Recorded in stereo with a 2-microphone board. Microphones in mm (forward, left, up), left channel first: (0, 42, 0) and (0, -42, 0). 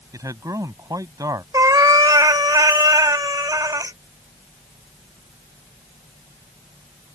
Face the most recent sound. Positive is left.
turn(degrees=-45)  # may be behind; listen again after turning